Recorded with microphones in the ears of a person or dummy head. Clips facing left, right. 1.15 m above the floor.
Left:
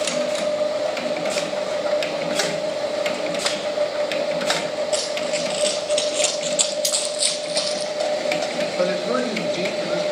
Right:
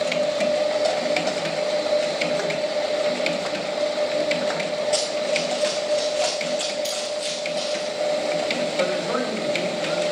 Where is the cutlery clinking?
75° left (ahead or behind), 5.5 m.